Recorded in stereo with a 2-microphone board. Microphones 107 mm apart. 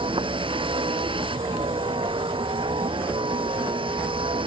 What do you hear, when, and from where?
0.0 s a vehicle: 50° right (ahead or behind)